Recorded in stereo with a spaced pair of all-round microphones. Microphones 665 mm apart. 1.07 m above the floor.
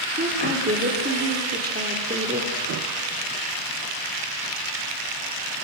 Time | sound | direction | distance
0.2 | a woman speaking | 15° right (ahead or behind) | 3 m